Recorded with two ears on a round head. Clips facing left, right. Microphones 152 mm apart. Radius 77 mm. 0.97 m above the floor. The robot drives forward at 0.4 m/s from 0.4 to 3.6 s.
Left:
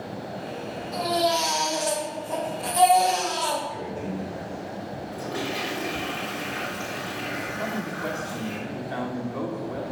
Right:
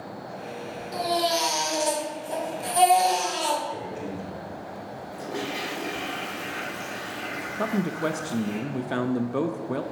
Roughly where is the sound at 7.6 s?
Right.